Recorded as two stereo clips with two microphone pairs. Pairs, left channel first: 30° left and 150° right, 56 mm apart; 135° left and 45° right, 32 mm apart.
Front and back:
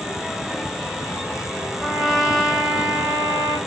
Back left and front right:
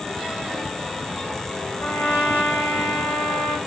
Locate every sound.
1.8 s a trumpet: 125° left, 4.5 m